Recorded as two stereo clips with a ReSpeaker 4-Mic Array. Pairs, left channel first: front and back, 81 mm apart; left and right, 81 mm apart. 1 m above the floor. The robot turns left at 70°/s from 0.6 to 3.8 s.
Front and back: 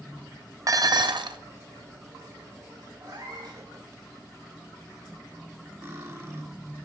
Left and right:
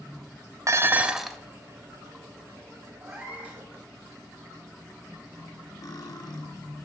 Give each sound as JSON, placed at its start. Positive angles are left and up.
{"t": 0.7, "sound": "dishes clattering", "azimuth_deg": -135, "distance_m": 0.5}
{"t": 3.0, "sound": "a cat meowing", "azimuth_deg": -135, "distance_m": 2.5}
{"t": 5.8, "sound": "cutlery clinking", "azimuth_deg": 125, "distance_m": 1.4}